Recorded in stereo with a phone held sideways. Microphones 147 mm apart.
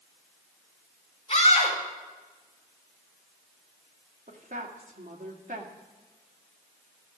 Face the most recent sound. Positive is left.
turn(degrees=-65)  # may be behind; listen again after turning